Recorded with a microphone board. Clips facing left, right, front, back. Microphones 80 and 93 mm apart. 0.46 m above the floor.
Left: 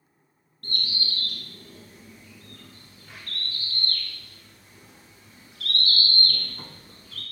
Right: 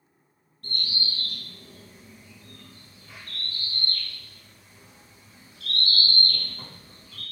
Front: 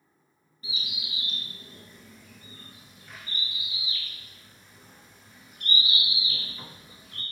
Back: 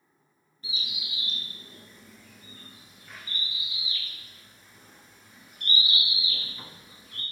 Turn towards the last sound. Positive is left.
turn(degrees=90)